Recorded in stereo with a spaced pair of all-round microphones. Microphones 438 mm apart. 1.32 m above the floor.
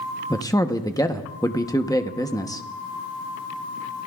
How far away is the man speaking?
About 0.9 m.